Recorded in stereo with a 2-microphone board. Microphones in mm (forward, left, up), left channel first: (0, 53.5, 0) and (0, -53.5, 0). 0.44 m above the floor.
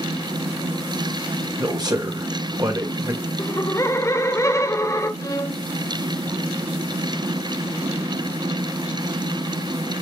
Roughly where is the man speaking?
Right.